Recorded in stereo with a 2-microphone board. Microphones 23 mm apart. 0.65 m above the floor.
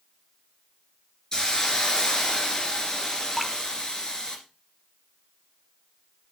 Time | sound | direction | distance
1.3 | a hiss | 25° left (ahead or behind) | 2.5 m
3.4 | dripping | 5° left (ahead or behind) | 0.7 m